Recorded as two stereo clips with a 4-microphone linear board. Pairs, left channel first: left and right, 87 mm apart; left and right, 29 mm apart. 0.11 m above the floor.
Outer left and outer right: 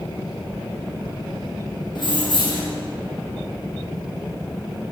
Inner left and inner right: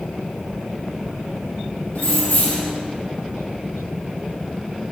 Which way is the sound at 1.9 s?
55° left (ahead or behind).